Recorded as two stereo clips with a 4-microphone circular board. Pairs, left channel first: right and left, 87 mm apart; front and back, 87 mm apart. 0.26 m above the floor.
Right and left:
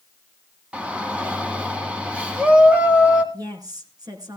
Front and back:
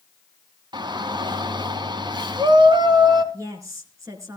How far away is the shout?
About 2.5 m.